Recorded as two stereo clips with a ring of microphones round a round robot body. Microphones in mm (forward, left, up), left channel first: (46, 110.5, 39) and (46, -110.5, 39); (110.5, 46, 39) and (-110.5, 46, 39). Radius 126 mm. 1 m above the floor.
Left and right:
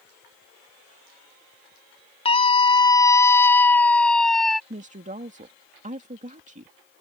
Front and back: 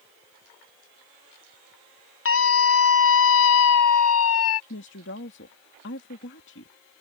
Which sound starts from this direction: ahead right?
A woman speaking, at 4.7 s.